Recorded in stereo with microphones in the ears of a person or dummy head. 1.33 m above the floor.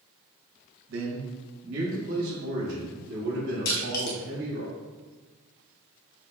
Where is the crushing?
50° left (ahead or behind), 0.9 m.